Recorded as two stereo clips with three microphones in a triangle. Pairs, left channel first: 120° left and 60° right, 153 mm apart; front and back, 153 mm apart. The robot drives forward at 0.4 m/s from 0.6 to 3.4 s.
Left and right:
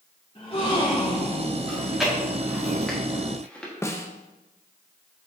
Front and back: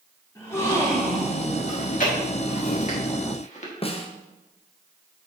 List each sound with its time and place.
0.3 s a gasp: 70° left, 3.5 m; by 1.6 s 80° left, 3.5 m
1.7 s chewing: 25° left, 2 m; by 3.7 s 40° left, 1.6 m
3.8 s a snare drum: 45° left, 0.8 m